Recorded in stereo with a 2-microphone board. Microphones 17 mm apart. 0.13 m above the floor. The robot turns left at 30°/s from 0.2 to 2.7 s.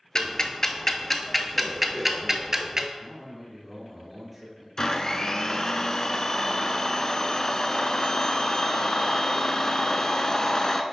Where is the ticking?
40° left (ahead or behind), 0.7 m; by 2.9 s 25° right (ahead or behind), 0.7 m.